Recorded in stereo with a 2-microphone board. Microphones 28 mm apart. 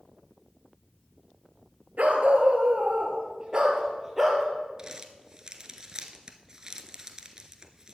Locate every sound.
2.0 s a dog barking: 55° right (ahead or behind), 2.5 m; by 4.5 s 10° right (ahead or behind), 3 m
4.8 s crumpling: 25° right (ahead or behind), 1.0 m